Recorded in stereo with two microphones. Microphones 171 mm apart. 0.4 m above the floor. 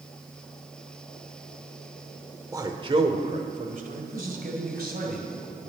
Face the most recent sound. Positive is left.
turn(degrees=-70)  # may be behind; listen again after turning